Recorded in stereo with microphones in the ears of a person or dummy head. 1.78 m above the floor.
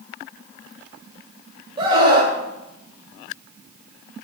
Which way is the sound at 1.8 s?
25° right (ahead or behind).